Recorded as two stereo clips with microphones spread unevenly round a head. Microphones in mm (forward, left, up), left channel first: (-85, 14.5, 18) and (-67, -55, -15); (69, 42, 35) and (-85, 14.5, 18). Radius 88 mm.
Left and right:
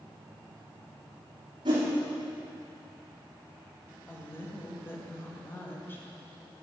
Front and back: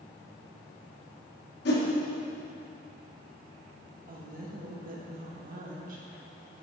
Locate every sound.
1.6 s a whoosh: 25° right, 1.1 m
4.1 s a woman speaking: 175° left, 1.3 m